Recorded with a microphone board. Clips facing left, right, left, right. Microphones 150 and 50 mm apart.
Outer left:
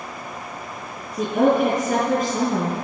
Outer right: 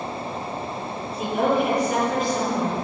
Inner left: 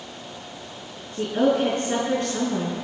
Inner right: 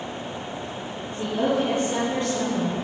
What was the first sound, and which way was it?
A woman speaking, 45° left (ahead or behind).